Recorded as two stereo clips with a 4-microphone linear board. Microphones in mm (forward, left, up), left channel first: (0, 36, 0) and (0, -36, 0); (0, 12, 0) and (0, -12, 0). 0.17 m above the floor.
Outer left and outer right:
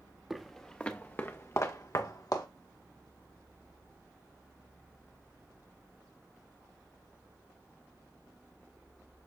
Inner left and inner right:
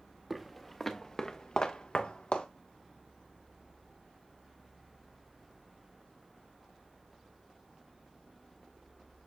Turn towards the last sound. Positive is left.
turn(degrees=60)  # may be behind; listen again after turning